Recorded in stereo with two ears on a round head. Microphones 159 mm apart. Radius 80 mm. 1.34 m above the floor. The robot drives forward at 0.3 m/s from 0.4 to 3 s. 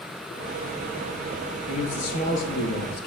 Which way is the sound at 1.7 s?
45° left (ahead or behind).